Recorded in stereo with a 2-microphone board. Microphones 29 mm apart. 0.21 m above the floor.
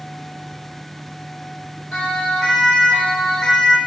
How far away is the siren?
About 8 m.